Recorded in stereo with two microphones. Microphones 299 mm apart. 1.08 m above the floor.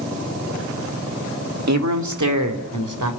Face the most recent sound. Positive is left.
turn(degrees=-85)